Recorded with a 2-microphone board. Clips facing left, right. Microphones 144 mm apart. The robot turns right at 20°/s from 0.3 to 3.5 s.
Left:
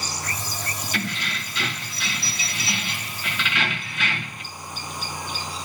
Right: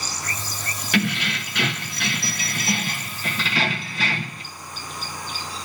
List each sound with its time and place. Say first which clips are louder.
0.9 s keys jangling: right 9 dB; 90° right, 1.2 m; by 4.4 s 40° right, 1.2 m